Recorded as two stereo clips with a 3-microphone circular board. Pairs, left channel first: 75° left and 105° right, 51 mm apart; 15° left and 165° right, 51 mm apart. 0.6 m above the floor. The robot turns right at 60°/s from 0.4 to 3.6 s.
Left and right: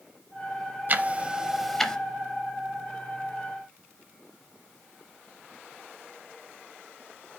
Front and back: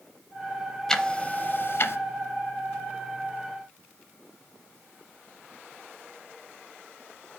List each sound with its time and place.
0.9 s ticking: 60° right, 0.6 m; by 2.0 s 5° left, 0.6 m